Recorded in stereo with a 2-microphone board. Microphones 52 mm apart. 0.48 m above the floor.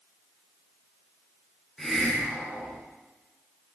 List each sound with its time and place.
1.8 s a hiss: 10° left (ahead or behind), 4 m